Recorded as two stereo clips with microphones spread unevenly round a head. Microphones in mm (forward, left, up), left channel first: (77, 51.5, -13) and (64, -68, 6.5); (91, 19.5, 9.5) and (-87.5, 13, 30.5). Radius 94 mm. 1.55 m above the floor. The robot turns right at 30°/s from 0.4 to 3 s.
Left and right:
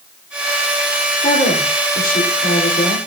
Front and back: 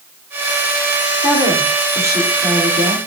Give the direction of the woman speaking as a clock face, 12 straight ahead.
9 o'clock.